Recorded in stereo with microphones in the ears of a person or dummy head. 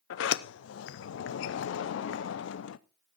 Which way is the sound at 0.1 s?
65° left (ahead or behind).